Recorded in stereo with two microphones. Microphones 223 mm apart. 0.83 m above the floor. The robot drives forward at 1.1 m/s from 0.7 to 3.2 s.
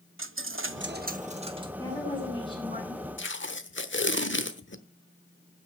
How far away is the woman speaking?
About 7 m.